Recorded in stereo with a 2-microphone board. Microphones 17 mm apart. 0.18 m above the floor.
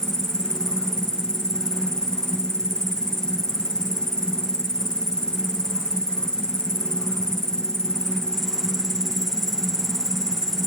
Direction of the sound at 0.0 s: 35° left (ahead or behind).